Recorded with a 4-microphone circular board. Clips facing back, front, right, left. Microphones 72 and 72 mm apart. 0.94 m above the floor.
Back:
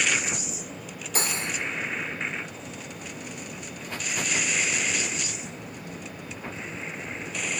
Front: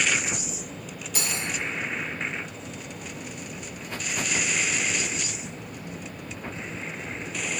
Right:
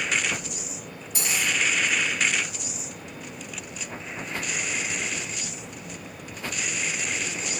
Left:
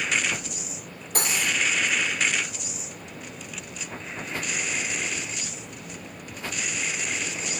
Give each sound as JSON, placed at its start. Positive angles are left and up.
{"t": 1.1, "sound": "cutlery clinking", "azimuth_deg": 130, "distance_m": 1.9}